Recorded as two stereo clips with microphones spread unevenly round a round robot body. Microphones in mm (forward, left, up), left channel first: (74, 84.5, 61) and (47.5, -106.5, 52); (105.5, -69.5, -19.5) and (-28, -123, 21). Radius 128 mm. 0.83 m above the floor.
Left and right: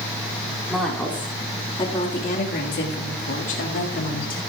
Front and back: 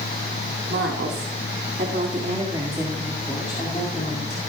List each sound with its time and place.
0.7 s a woman speaking: 175° left, 3 m; by 4.4 s 65° left, 2.5 m